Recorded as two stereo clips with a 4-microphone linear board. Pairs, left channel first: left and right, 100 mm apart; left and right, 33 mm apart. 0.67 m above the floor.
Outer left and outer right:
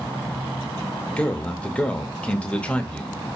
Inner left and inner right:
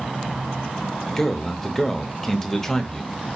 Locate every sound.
1.2 s a man speaking: 10° left (ahead or behind), 0.7 m